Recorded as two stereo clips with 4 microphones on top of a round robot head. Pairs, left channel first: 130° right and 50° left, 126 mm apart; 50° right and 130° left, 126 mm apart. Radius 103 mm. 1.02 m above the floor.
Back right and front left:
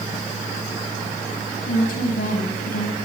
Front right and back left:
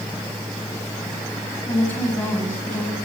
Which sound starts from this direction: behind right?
A woman speaking, at 1.7 s.